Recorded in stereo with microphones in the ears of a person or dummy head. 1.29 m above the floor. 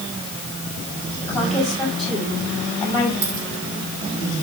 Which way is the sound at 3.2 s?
75° right (ahead or behind).